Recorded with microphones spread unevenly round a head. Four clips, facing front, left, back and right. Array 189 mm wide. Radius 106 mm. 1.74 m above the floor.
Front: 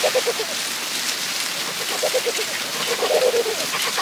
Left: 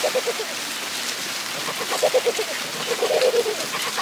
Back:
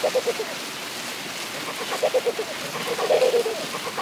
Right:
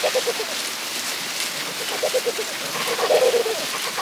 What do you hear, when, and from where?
Only background noise.